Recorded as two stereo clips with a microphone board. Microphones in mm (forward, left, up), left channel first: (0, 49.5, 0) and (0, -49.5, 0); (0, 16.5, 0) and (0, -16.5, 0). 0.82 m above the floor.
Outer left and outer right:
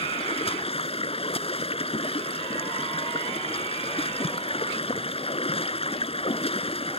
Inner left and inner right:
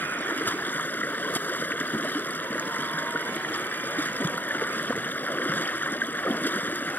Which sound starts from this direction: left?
Running water, at 0.0 s.